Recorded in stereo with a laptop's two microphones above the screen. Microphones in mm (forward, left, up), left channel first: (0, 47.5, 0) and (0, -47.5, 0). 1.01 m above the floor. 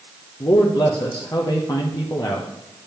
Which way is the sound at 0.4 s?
45° left (ahead or behind).